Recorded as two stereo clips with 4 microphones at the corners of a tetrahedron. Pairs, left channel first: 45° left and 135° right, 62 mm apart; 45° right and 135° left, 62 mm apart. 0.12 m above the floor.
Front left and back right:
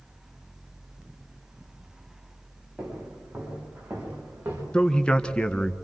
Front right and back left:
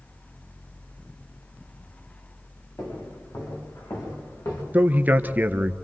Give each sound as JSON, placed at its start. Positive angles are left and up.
{"t": 2.8, "sound": "footsteps", "azimuth_deg": -60, "distance_m": 7.5}
{"t": 4.7, "sound": "a man speaking", "azimuth_deg": 105, "distance_m": 1.2}